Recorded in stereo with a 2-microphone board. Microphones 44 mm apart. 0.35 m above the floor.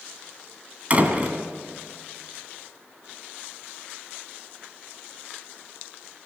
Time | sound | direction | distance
0.9 | a door slam | 30° right (ahead or behind) | 2 m